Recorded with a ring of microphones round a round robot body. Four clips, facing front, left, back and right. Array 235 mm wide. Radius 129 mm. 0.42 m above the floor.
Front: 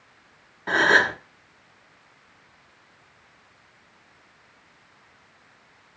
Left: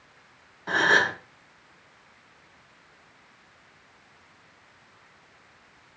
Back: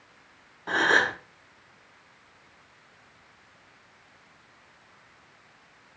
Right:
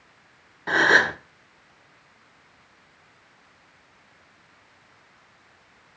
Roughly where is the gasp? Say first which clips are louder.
Right 3 dB, front 4 dB; ahead right.